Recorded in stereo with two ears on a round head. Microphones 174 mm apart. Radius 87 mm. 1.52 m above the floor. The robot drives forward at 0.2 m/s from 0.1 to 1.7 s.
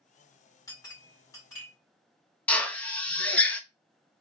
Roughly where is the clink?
Centre.